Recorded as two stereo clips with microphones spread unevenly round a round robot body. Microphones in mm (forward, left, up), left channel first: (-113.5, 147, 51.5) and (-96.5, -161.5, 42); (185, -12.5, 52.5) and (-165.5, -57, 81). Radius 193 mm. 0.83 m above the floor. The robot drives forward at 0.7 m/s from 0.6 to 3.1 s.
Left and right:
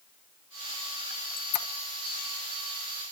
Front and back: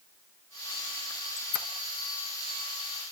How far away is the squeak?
About 1.8 m.